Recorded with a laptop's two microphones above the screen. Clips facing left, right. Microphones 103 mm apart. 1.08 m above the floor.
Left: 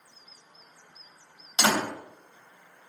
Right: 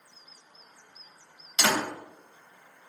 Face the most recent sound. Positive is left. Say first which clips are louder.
# left 2 dB
turn(degrees=35)  # may be behind; listen again after turning